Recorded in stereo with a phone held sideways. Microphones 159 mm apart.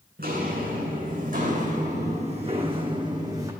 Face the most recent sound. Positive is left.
turn(degrees=-20)  # may be behind; listen again after turning